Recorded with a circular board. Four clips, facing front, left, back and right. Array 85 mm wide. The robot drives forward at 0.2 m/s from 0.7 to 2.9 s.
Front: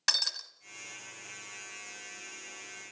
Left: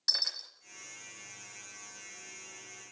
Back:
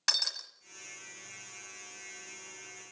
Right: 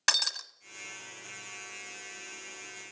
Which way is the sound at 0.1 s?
90° right.